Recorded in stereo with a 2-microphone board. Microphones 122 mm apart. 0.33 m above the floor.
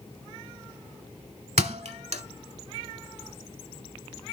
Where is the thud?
75° right (ahead or behind), 0.7 m.